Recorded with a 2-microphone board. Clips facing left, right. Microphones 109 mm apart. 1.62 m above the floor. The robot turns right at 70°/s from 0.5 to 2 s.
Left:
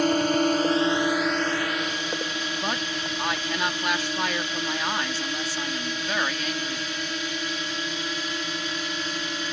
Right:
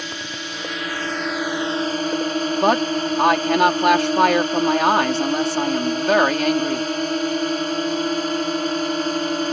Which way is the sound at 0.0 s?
125° left.